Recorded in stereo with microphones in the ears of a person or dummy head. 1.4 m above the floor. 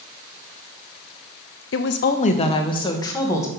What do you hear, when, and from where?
1.7 s a woman speaking: 55° left (ahead or behind), 0.5 m; by 3.5 s 15° left (ahead or behind), 1.8 m